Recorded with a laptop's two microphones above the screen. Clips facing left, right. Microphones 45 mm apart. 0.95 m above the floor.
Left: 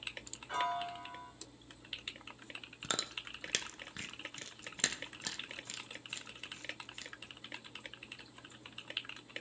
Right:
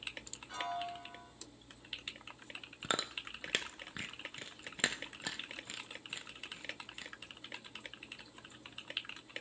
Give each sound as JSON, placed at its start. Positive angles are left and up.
{"t": 0.5, "sound": "a piano", "side_deg": 35, "distance_m": 2.0}
{"t": 2.8, "sound": "chewing", "side_deg": -15, "distance_m": 0.5}